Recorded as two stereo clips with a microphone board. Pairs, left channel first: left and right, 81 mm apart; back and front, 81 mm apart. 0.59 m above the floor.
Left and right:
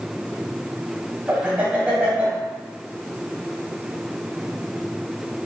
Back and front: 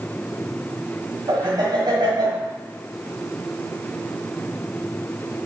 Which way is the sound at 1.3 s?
20° right.